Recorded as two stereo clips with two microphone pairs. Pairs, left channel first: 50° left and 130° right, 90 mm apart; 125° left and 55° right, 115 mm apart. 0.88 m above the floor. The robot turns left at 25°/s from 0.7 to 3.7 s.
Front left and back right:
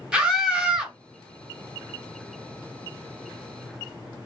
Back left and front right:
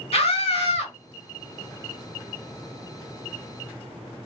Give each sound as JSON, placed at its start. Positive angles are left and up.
{"t": 0.1, "sound": "a scream", "azimuth_deg": 150, "distance_m": 1.3}